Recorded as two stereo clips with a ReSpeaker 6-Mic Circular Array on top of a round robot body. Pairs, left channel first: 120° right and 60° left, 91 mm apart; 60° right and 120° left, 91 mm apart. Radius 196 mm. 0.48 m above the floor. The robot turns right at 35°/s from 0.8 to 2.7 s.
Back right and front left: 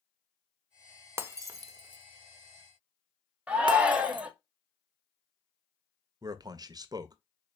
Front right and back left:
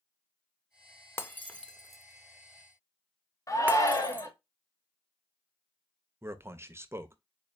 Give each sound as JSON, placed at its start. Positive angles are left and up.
{"t": 1.2, "sound": "breaking glass", "azimuth_deg": 0, "distance_m": 0.7}
{"t": 3.5, "sound": "a shout", "azimuth_deg": -15, "distance_m": 1.2}
{"t": 6.2, "sound": "a man speaking", "azimuth_deg": 70, "distance_m": 0.8}